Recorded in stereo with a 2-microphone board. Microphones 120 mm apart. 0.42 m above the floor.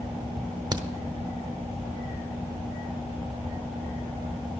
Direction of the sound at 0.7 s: 30° right (ahead or behind).